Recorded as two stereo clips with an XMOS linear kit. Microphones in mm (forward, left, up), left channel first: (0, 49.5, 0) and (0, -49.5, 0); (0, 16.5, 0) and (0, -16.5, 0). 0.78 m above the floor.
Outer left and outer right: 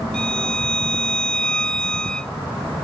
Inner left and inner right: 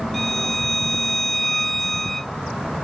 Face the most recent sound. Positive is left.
turn(degrees=10)  # may be behind; listen again after turning